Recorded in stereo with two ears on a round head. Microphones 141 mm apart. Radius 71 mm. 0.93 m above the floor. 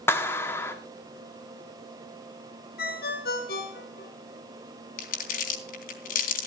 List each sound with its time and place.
0.1 s a clap: 15° left (ahead or behind), 1.8 m
2.8 s a ringtone: 75° left (ahead or behind), 5 m
5.0 s crumpling: 65° left (ahead or behind), 3.5 m